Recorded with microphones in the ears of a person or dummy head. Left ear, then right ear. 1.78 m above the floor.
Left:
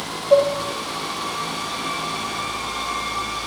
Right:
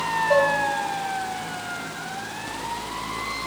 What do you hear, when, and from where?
0.3 s dishes clattering: 60° right (ahead or behind), 2.5 m